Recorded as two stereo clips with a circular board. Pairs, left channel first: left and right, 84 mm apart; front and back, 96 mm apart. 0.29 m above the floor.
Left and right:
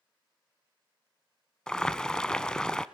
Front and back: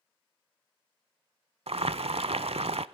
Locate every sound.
1.7 s boiling: 170° left, 0.5 m